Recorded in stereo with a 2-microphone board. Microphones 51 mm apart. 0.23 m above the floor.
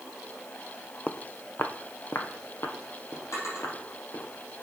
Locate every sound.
1.1 s footsteps: 25° left (ahead or behind), 0.5 m; by 4.3 s 75° left (ahead or behind), 2.5 m
3.3 s a drawer: 75° left (ahead or behind), 4 m